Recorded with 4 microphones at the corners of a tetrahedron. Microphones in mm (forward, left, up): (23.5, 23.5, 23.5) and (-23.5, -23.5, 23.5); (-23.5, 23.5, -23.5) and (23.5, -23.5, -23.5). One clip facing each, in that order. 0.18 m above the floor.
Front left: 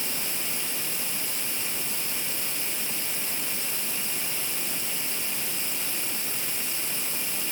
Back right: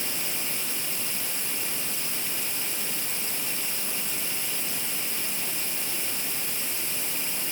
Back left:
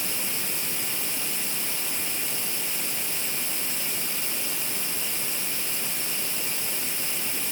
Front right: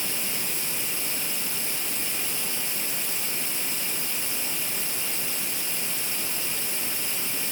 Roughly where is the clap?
I don't hear a clap.